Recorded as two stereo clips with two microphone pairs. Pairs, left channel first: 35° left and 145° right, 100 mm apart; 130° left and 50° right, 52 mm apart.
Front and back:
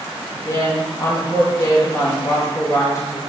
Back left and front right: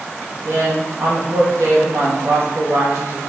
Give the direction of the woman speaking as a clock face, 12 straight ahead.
1 o'clock.